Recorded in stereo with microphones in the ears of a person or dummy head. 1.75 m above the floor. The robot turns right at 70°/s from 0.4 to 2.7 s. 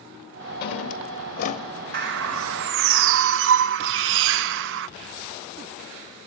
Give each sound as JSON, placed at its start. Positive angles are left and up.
{"t": 0.6, "sound": "a drawer", "azimuth_deg": 75, "distance_m": 1.7}
{"t": 1.9, "sound": "a bird", "azimuth_deg": -125, "distance_m": 0.5}